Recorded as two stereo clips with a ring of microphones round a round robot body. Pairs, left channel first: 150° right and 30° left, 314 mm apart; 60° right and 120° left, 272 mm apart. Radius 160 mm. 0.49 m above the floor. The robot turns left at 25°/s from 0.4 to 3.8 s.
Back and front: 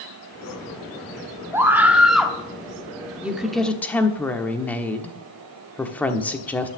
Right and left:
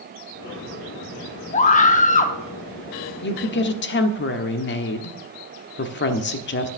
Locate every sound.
1.5 s a scream: 40° right, 0.8 m; by 2.4 s 65° right, 0.8 m
3.2 s a woman speaking: 55° right, 1.2 m; by 6.7 s 65° right, 1.2 m